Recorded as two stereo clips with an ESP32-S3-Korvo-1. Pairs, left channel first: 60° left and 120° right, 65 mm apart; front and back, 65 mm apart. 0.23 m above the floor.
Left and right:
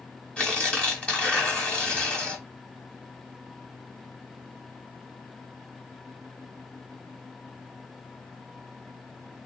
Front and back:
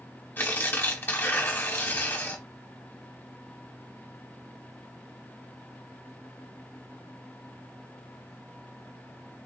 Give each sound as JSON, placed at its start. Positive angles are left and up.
{"t": 0.4, "sound": "tearing paper", "azimuth_deg": 5, "distance_m": 1.2}